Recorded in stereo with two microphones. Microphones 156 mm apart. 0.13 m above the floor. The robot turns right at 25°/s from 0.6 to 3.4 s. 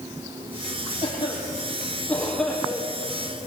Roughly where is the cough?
Left.